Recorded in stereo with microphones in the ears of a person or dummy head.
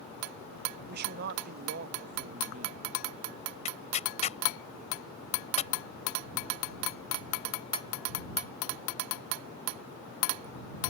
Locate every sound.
0.9 s a man speaking: 55° right (ahead or behind); by 2.8 s 40° right (ahead or behind)
3.6 s tearing paper: 20° left (ahead or behind)